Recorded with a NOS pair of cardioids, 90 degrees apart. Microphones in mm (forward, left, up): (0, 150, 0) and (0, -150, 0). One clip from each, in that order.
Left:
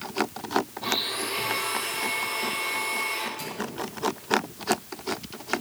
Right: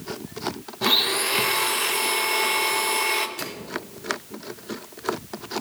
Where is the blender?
60° right, 1.4 m.